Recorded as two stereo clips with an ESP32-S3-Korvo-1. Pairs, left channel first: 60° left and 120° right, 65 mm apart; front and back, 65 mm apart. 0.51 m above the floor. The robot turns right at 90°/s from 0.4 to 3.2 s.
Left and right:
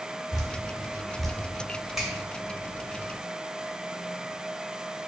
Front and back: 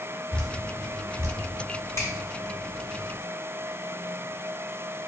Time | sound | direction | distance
0.3 | dripping | 70° left | 0.8 m
2.0 | a finger snap | 35° right | 1.6 m